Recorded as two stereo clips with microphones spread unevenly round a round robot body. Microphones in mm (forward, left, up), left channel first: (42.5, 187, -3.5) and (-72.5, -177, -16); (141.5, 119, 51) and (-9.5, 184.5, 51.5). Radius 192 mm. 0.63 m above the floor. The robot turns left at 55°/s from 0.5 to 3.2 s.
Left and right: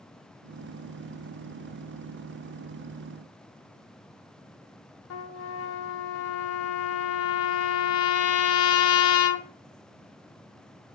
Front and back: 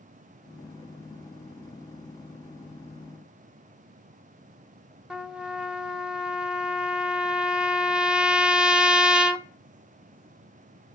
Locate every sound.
5.1 s a trumpet: 75° left, 0.8 m